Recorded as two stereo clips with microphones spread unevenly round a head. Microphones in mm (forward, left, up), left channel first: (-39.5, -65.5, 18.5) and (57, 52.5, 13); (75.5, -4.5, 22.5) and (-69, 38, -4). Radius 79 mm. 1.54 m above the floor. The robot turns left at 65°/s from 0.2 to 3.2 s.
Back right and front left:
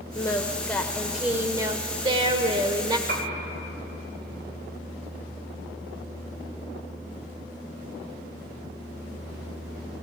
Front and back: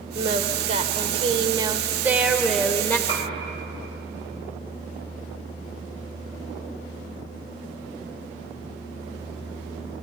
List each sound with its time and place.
0.1 s singing: 165° right, 1.3 m; by 3.0 s 15° left, 1.3 m
3.1 s a piano: 45° left, 5 m; by 3.3 s 35° left, 5 m